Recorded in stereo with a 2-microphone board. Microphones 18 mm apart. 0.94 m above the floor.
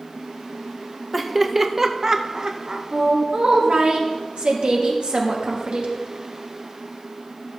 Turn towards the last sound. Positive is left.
turn(degrees=-65)  # may be behind; listen again after turning